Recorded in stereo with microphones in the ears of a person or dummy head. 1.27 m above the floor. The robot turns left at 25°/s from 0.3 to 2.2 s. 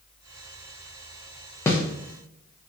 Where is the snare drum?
20° left (ahead or behind), 0.5 m; by 1.8 s 25° left (ahead or behind), 0.5 m.